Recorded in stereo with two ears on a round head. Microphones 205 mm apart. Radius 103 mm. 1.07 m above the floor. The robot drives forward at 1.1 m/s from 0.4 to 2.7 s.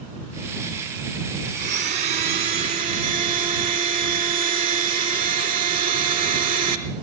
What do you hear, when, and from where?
1.6 s a blender: 35° right (ahead or behind), 2.5 m; by 6.8 s 25° right (ahead or behind), 3.5 m